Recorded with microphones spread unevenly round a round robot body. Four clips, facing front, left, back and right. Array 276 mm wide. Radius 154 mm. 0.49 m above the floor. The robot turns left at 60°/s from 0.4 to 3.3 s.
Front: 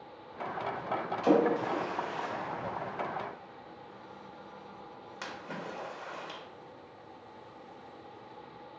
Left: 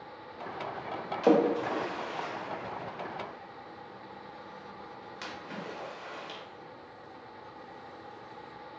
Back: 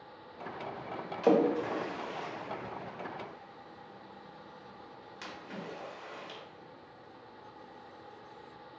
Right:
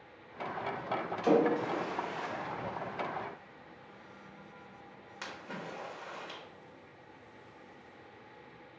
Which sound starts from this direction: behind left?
A splash, at 1.2 s.